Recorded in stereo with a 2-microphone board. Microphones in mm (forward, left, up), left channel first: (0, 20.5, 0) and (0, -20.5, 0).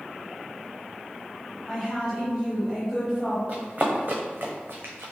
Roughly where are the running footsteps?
Right.